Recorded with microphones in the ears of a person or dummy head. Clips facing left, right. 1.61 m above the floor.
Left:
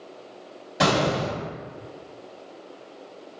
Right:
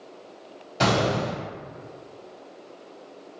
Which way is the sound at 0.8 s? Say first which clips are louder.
Left 1 dB; 20° left (ahead or behind).